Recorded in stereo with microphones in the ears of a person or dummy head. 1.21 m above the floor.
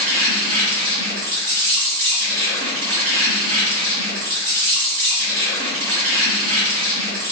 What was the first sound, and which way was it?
An insect, 70° right (ahead or behind).